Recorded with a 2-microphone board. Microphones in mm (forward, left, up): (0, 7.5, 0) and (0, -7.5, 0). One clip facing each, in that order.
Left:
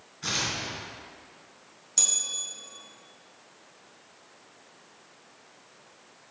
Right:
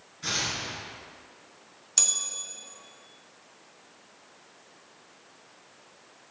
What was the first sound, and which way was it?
Tearing paper, 5° left (ahead or behind).